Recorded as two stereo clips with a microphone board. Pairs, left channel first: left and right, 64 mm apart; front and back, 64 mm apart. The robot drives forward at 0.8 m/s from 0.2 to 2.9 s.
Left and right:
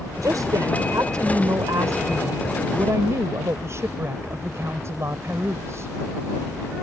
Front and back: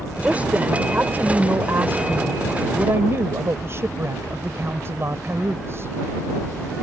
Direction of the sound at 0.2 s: 115° right.